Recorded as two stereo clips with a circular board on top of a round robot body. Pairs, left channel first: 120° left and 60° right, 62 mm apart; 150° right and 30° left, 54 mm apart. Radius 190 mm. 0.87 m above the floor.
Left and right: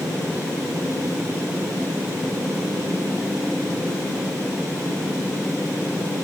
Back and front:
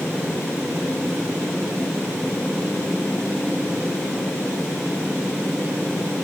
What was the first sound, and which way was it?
Only background noise.